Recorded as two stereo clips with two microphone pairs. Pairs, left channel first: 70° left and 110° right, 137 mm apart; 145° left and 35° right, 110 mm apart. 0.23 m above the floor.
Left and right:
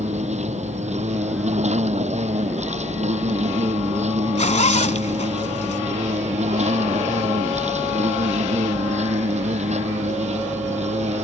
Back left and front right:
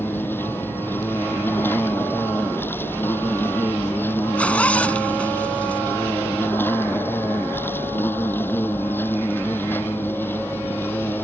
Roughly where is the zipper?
Left.